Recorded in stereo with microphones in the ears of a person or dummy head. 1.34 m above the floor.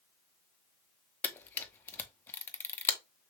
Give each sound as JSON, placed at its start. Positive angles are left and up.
{"t": 1.2, "sound": "a camera shutter", "side_deg": 10, "distance_m": 0.6}